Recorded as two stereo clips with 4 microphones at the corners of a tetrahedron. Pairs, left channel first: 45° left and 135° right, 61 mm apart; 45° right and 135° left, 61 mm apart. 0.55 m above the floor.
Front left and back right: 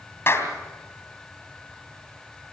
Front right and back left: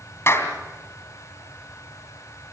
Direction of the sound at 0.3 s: Straight ahead.